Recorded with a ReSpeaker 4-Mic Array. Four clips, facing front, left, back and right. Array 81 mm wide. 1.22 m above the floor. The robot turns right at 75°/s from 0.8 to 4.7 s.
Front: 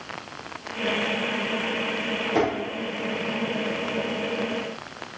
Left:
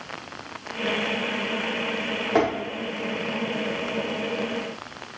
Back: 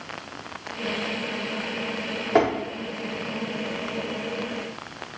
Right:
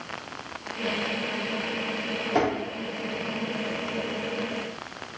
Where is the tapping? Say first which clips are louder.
Left 3 dB, back 4 dB; 145° left, 1.9 m; by 2.5 s 155° left, 1.9 m.